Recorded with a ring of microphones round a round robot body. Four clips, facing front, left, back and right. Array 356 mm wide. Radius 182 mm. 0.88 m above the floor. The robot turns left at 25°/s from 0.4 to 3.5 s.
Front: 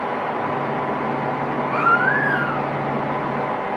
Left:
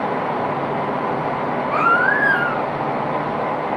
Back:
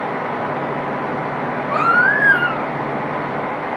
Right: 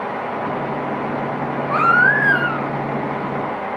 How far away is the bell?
No bell in this recording.